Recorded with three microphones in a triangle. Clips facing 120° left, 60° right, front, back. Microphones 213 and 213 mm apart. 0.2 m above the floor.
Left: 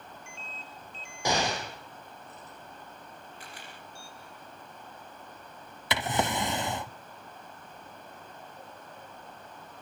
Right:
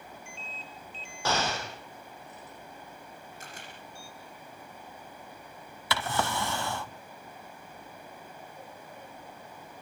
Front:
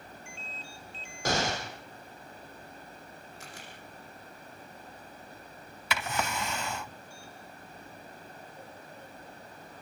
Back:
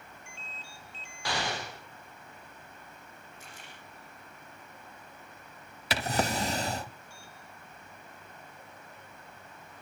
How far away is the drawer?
About 0.6 m.